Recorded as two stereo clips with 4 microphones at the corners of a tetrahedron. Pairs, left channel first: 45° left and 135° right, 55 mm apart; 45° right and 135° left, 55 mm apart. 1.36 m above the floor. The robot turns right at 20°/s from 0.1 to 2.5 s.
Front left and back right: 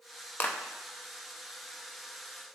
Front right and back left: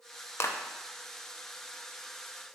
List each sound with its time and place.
0.4 s a clap: 10° right, 0.6 m; by 0.6 s 5° right, 0.6 m